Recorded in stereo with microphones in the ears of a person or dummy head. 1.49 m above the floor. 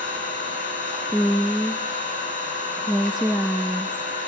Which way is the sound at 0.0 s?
40° left (ahead or behind).